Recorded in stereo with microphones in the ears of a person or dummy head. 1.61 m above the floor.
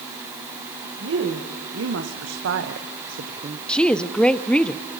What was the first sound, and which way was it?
A woman speaking, 70° right (ahead or behind).